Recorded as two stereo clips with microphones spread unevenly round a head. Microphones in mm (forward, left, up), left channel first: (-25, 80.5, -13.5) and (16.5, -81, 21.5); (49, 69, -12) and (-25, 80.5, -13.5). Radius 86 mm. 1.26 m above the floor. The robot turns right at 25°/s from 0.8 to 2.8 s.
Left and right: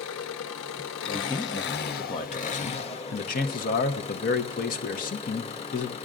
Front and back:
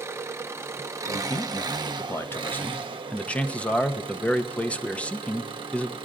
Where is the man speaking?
20° left, 0.9 m; by 6.0 s 65° left, 0.9 m.